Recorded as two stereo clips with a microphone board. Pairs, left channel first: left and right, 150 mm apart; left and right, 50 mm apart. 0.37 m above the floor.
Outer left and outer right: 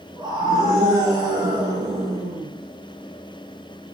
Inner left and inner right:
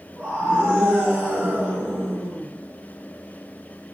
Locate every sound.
0.2 s a scream: 30° right (ahead or behind), 4.5 m